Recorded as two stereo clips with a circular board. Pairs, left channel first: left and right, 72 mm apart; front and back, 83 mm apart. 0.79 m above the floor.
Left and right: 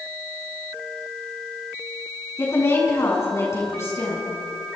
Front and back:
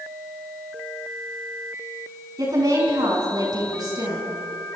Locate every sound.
2.4 s a woman speaking: 140° left, 9 m